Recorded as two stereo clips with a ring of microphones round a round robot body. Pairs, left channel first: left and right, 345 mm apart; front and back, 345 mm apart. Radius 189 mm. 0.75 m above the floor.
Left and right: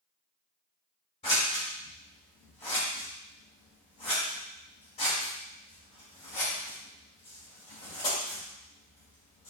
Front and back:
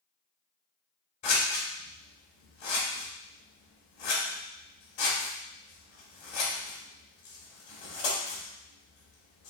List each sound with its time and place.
1.2 s scissors: 15° left, 1.7 m